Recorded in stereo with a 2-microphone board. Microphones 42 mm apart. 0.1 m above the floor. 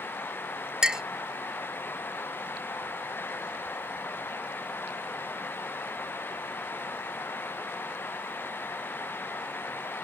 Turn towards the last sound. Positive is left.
turn(degrees=-20)  # may be behind; listen again after turning